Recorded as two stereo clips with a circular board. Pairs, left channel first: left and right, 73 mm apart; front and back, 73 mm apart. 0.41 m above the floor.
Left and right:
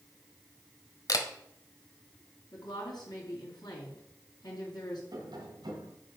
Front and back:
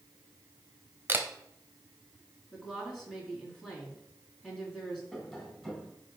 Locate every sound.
1.1 s a camera shutter: 120° left, 1.1 m
2.5 s a woman speaking: 90° left, 3 m
5.1 s tapping: 90° right, 2.5 m